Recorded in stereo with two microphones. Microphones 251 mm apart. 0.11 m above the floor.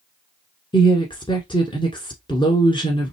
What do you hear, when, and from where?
0.7 s a woman speaking: 20° left (ahead or behind), 1.1 m